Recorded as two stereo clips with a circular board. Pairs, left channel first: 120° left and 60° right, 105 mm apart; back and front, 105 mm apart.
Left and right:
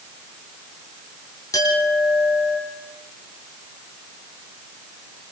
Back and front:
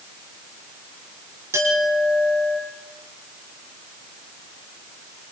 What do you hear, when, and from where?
1.5 s a clink: 65° left, 7 m